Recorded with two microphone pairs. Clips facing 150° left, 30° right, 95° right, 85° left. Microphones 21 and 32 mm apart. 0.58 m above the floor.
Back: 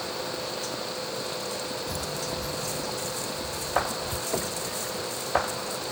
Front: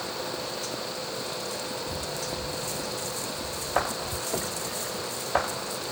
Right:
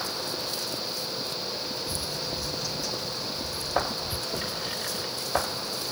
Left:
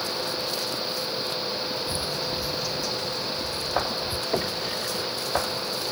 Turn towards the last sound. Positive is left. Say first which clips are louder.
# back 2 dB, left 5 dB
turn(degrees=70)